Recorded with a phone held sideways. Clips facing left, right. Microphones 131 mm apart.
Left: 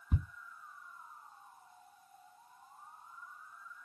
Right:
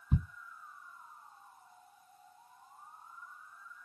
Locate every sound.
0.1 s ticking: centre (ahead or behind), 2.5 m